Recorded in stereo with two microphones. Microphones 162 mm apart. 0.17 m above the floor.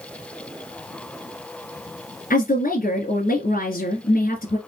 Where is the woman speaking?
60° left (ahead or behind), 2 m.